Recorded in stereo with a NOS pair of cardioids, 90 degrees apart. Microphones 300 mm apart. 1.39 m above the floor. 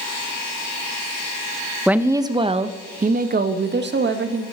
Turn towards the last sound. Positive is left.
turn(degrees=-40)